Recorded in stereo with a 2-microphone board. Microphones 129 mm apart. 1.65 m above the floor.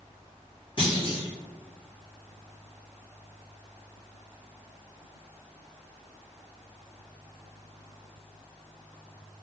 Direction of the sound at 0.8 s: 40° left (ahead or behind).